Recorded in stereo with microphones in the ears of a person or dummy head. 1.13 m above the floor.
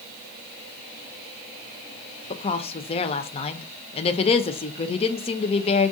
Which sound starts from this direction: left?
A woman speaking, at 2.3 s.